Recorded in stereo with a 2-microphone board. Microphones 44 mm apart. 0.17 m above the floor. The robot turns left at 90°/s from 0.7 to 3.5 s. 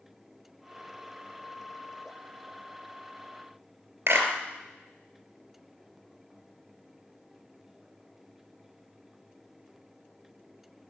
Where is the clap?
55° right (ahead or behind), 2.5 m.